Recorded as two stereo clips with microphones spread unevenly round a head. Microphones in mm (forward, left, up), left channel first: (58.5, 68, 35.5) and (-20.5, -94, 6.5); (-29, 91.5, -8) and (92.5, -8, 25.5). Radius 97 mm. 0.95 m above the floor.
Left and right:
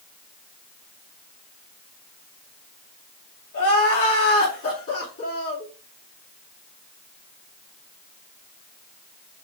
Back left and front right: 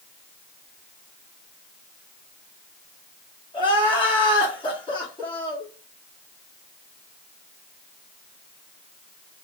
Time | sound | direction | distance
3.5 | crying | 85° left | 2.0 m